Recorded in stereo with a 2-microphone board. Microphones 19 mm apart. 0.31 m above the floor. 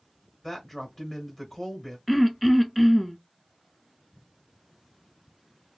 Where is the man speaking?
15° left (ahead or behind), 1.3 m.